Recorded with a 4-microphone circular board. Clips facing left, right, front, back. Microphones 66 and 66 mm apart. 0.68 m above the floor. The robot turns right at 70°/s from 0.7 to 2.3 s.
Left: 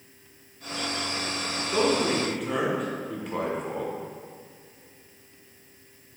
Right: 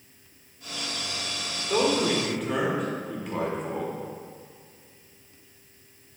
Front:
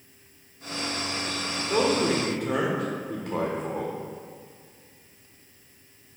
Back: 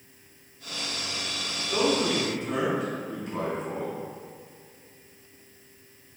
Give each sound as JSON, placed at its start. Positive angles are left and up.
{"t": 1.7, "sound": "a man speaking", "azimuth_deg": -40, "distance_m": 1.7}